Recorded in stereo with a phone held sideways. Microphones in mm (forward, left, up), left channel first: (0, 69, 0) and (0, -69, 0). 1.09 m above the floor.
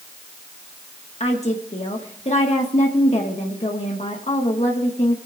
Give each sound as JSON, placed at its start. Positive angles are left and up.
{"t": 1.2, "sound": "a woman speaking", "side_deg": 50, "distance_m": 1.5}